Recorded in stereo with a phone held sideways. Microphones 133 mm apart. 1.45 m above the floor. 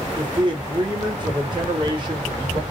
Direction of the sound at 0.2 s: 35° right (ahead or behind).